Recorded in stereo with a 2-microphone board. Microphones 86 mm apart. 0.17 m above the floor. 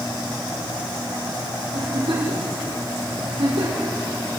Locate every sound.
1.7 s a giggle: 80° right, 6 m